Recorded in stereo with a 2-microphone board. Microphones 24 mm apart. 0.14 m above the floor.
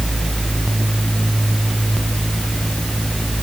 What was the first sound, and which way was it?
Only background noise.